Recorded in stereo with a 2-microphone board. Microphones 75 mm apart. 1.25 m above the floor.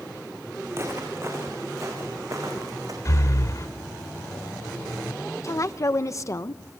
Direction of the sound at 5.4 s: 40° left (ahead or behind).